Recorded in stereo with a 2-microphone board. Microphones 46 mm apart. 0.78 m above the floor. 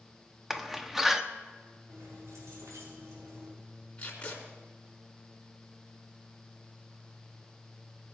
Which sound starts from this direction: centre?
A door slam, at 0.5 s.